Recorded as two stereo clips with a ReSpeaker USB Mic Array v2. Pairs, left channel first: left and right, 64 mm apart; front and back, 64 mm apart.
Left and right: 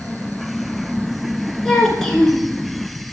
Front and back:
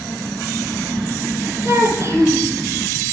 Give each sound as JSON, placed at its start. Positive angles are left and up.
{"t": 1.6, "sound": "a child speaking", "azimuth_deg": 170, "distance_m": 1.5}